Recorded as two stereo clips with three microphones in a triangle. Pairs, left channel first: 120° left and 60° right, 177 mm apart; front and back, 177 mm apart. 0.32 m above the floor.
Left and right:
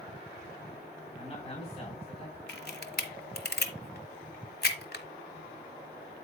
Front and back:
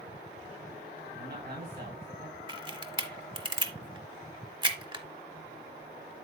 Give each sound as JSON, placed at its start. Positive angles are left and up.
{"t": 1.1, "sound": "a man speaking", "azimuth_deg": 170, "distance_m": 3.0}
{"t": 2.5, "sound": "a camera shutter", "azimuth_deg": 120, "distance_m": 1.1}